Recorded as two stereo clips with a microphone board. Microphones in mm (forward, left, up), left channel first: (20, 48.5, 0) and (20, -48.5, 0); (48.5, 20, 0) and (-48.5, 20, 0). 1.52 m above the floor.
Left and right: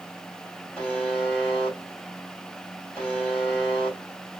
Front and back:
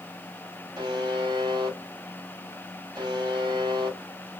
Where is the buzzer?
170° left, 1.6 m.